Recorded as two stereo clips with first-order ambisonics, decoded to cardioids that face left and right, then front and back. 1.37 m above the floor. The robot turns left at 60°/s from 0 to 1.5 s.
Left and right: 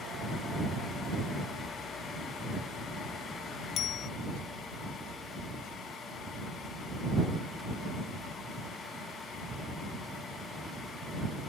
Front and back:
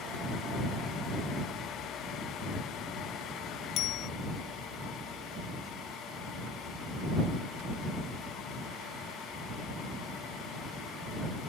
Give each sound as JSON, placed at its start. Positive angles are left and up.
{"t": 3.8, "sound": "a bicycle bell", "azimuth_deg": 40}